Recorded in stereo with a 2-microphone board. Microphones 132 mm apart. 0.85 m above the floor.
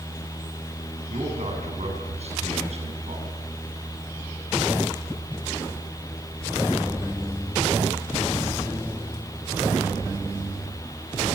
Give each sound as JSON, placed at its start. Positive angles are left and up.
{"t": 1.1, "sound": "a man speaking", "side_deg": -55, "distance_m": 8.0}